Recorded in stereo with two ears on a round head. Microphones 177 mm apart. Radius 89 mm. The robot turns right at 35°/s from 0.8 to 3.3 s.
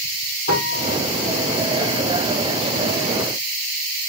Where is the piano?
65° left (ahead or behind), 3 m; by 1.0 s 60° left (ahead or behind), 3 m.